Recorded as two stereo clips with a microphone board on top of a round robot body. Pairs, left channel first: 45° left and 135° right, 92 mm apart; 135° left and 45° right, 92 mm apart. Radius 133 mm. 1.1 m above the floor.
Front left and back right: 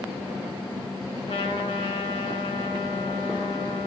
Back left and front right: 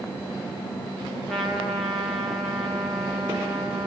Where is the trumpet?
45° left, 3 m.